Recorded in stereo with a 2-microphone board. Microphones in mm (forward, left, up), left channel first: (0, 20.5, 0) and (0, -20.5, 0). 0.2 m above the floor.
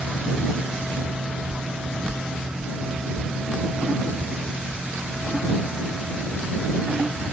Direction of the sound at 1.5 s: 45° right (ahead or behind).